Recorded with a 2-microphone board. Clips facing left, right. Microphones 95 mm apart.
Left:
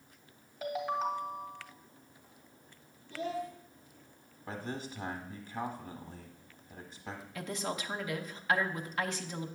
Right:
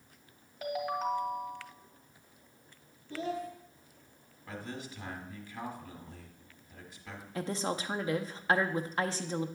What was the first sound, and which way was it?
A ringtone, centre (ahead or behind).